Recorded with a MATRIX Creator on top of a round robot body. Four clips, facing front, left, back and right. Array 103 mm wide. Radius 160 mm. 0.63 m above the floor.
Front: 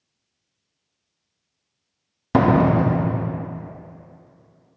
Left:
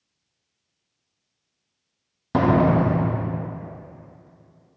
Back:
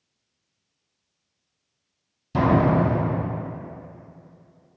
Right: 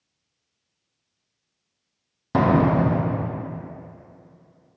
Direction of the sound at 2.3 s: 5° right.